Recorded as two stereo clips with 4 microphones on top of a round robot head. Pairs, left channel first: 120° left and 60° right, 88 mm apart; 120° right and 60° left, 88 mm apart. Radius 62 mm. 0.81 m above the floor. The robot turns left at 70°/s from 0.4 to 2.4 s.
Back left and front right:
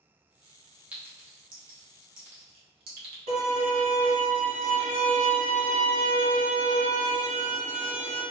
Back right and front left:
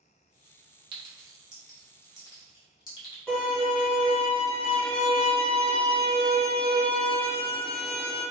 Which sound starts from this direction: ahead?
A clink, at 0.9 s.